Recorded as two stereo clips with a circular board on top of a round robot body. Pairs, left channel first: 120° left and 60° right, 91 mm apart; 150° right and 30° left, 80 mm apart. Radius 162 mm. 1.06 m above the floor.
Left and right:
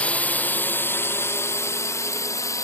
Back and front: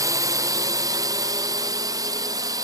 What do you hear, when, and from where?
0.0 s a drone: 50° left; by 2.6 s 70° left